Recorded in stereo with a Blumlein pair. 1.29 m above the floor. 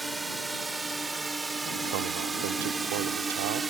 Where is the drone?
5° right; by 3.7 s 15° right.